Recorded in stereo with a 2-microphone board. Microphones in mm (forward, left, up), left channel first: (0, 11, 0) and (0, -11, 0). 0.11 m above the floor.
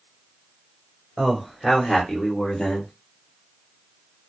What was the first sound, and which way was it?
A man speaking, 15° left (ahead or behind).